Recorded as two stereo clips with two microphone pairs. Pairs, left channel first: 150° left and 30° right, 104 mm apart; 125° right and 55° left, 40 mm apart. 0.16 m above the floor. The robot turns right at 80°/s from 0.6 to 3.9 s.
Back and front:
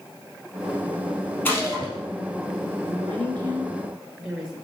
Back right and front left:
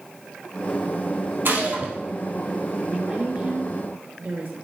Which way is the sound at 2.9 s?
30° right.